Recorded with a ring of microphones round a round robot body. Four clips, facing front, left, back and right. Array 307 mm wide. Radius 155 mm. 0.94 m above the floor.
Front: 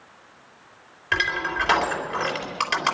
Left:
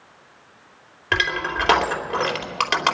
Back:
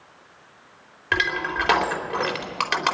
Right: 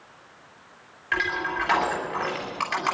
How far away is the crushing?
About 3 m.